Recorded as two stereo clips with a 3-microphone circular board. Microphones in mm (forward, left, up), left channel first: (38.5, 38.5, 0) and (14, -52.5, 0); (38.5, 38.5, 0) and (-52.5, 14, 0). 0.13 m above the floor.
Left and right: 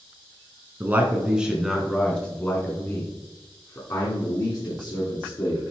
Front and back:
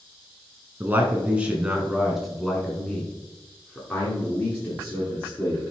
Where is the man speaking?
135° right, 1.7 m; by 5.6 s 75° left, 3 m.